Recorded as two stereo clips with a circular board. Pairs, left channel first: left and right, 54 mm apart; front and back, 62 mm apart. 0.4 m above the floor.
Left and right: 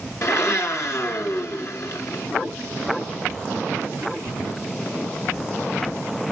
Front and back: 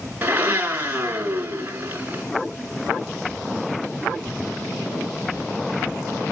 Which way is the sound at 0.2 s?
120° left.